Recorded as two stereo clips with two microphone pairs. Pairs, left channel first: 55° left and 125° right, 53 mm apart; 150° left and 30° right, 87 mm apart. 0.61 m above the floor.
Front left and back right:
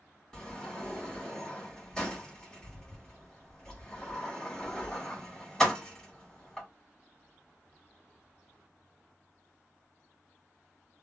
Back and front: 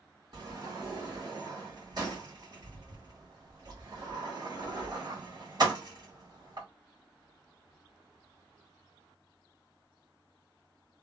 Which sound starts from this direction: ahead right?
A sliding door, at 0.3 s.